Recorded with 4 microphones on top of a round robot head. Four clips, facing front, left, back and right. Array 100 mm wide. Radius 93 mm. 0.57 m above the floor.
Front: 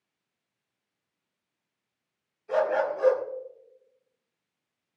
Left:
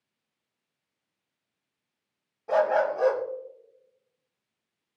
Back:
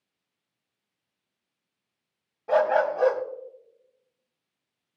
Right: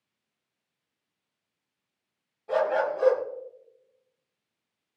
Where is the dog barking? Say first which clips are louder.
Left 2 dB, back 4 dB; 160° left, 1.7 m.